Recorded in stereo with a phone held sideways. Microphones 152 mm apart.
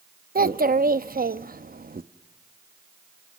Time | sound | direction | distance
0.3 | a child speaking | 75° right (ahead or behind) | 0.6 m